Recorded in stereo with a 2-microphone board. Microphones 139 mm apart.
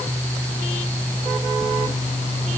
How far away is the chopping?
No chopping in this recording.